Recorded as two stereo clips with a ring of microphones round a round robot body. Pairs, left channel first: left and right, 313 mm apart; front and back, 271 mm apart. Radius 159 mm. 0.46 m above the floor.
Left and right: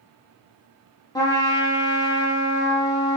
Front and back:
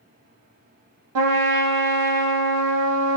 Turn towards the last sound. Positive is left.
turn(degrees=170)